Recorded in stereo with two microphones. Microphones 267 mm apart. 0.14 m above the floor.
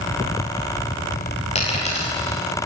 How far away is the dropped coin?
About 10 m.